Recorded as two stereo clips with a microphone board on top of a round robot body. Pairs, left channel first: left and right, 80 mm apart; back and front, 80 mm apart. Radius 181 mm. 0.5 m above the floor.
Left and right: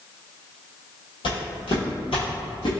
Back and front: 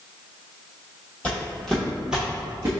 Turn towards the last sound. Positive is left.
turn(degrees=55)